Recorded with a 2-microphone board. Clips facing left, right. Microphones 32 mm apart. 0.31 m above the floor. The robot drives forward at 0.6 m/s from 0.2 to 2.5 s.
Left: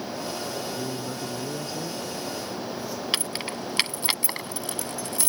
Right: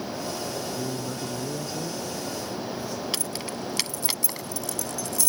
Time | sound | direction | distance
0.8 | a man speaking | 5° left (ahead or behind) | ?
3.1 | keys jangling | 35° left (ahead or behind) | ?